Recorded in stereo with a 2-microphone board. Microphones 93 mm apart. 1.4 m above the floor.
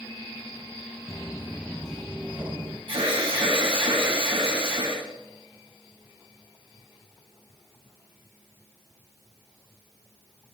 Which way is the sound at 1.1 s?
35° left (ahead or behind).